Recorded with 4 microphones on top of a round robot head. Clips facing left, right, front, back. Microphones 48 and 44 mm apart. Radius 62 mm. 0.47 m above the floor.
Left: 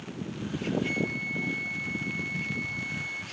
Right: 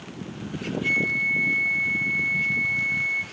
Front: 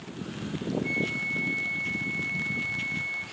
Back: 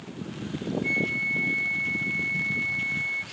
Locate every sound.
0.8 s a flute: 130° right, 8 m